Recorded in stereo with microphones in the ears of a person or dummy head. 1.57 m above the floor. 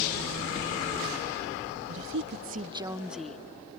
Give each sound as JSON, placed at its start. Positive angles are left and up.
{"t": 1.9, "sound": "a woman speaking", "side_deg": -80}